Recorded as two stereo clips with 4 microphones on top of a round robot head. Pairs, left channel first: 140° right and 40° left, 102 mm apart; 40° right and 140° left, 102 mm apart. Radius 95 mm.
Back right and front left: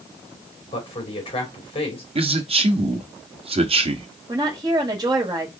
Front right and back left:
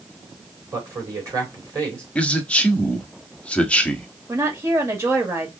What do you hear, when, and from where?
0.7 s a man speaking: 165° right, 3 m
2.1 s a man speaking: 35° left, 1.1 m
4.3 s a woman speaking: 80° left, 1.7 m